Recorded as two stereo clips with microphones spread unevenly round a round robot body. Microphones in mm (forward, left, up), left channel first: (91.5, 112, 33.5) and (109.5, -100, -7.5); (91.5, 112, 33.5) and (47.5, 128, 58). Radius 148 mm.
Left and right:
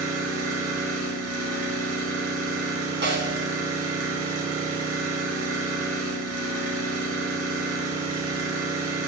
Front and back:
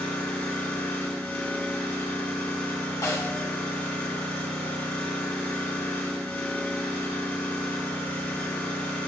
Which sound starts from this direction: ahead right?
A snare drum, at 3.0 s.